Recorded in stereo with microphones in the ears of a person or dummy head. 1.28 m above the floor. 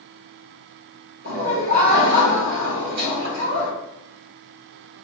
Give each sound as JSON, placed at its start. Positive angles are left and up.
{"t": 1.2, "sound": "laughter", "side_deg": -70, "distance_m": 1.1}